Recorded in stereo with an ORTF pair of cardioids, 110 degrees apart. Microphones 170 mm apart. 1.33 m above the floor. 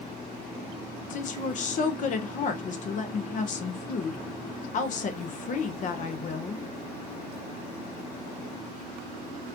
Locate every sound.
1.1 s a woman speaking: 50° left, 0.8 m